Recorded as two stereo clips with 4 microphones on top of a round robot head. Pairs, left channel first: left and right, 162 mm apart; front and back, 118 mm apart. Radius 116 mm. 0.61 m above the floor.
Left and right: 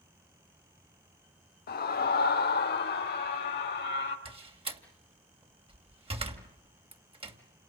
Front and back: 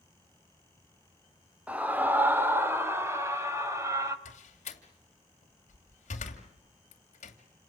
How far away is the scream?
About 1.6 m.